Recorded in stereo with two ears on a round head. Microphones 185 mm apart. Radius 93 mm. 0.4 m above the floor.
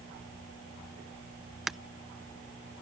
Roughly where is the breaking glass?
Centre.